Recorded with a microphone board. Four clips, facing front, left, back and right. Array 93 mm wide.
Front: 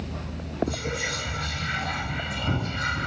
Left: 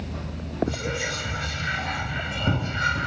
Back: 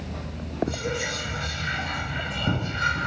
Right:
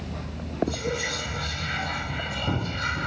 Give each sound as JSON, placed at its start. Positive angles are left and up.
{"t": 0.7, "sound": "whispering", "azimuth_deg": 120, "distance_m": 2.0}